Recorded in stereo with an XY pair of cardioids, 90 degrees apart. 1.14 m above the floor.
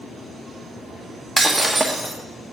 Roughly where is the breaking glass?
Ahead.